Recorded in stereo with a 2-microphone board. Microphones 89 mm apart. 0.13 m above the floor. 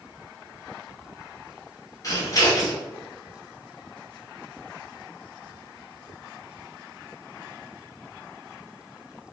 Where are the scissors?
35° left (ahead or behind), 1.2 m.